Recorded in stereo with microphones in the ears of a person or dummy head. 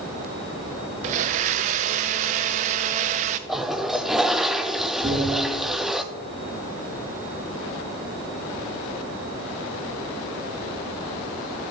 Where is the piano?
25° right (ahead or behind), 3 m.